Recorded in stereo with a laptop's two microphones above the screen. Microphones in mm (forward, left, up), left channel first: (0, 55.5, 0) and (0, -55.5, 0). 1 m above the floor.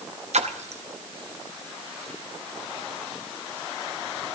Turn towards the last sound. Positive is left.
turn(degrees=-75)  # may be behind; listen again after turning